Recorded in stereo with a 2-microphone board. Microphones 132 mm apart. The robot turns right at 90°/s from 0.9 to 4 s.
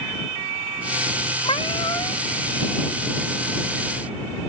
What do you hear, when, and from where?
1.4 s a cat meowing: 95° left; by 2.2 s 165° left